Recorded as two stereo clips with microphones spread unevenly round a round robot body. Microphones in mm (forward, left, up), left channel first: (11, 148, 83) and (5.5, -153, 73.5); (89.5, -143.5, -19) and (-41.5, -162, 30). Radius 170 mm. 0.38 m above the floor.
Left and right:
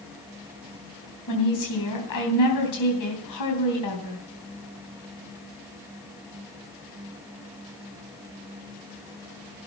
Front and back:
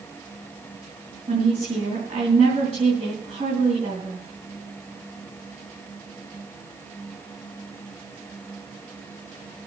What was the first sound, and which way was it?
A woman speaking, 110° left.